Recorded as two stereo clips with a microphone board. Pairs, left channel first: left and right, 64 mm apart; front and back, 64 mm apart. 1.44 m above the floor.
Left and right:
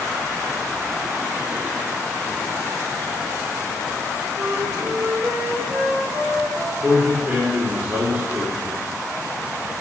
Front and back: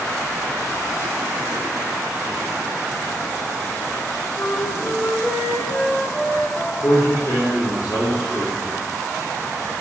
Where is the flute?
45° right, 2 m.